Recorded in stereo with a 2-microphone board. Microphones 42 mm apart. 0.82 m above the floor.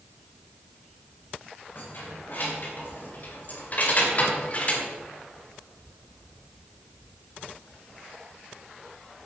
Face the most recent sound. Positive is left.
turn(degrees=35)  # may be behind; listen again after turning